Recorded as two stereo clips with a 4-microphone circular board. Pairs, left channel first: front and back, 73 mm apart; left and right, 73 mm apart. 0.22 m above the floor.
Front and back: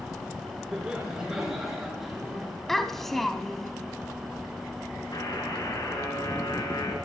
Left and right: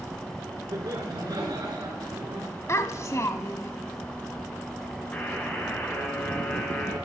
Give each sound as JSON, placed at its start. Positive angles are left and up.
{"t": 0.7, "sound": "laughter", "azimuth_deg": -105, "distance_m": 3.0}
{"t": 2.7, "sound": "a child speaking", "azimuth_deg": 85, "distance_m": 0.9}
{"t": 5.1, "sound": "a buzzer", "azimuth_deg": 20, "distance_m": 2.5}